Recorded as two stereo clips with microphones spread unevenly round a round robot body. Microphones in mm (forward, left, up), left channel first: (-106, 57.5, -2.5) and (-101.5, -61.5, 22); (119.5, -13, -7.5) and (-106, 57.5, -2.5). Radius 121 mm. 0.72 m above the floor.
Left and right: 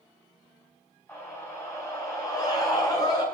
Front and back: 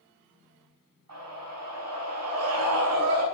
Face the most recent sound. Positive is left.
turn(degrees=145)